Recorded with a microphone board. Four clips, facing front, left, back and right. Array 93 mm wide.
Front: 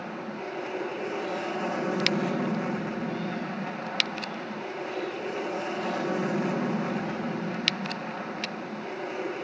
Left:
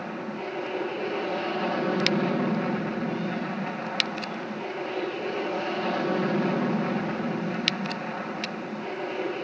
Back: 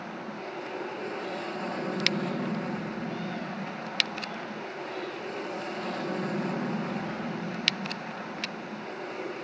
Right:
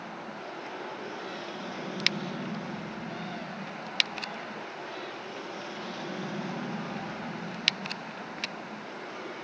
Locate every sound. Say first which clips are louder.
0.0 s an aircraft: left 7 dB, front 2 dB; 70° left